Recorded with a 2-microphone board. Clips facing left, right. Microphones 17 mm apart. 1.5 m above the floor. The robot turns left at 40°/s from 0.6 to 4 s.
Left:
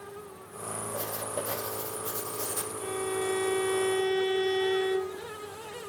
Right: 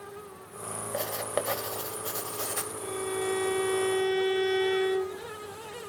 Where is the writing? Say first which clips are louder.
Right 5 dB; 75° right, 2.5 m; by 2.7 s 150° right, 2.5 m.